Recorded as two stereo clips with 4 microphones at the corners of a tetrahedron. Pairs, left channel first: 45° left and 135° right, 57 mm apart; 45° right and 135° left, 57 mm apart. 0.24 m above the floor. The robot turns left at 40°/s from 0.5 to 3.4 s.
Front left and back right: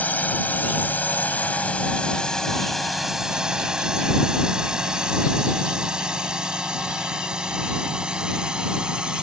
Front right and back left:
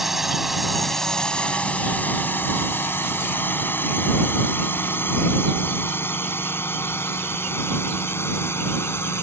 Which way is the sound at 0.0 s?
55° left.